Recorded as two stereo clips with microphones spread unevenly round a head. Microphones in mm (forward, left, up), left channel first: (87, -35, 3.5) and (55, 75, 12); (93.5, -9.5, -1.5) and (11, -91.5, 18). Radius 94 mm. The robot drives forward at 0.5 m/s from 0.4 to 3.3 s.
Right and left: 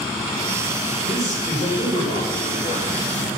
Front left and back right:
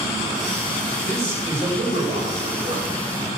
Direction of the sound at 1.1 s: 120° right.